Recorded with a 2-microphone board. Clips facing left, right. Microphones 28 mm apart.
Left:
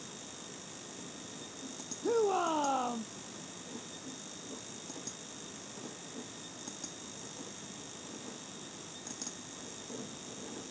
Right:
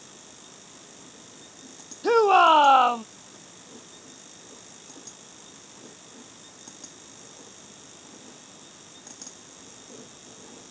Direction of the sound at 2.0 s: 75° right (ahead or behind).